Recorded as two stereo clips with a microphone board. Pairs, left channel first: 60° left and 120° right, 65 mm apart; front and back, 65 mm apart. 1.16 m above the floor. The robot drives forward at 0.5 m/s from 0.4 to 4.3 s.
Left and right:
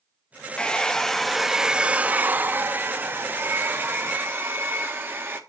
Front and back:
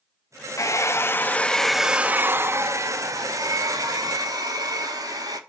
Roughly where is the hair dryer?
Ahead.